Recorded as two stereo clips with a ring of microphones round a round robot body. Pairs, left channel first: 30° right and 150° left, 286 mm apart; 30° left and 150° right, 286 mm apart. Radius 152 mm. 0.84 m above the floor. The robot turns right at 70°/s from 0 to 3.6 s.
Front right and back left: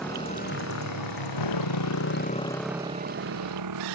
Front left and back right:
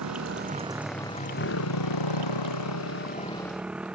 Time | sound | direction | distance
0.0 | a motorcycle | 120° right | ?